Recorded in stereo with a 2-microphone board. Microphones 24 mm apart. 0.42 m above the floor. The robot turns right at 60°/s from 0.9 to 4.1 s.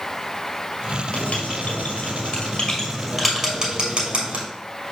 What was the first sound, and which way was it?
Writing, 65° left (ahead or behind).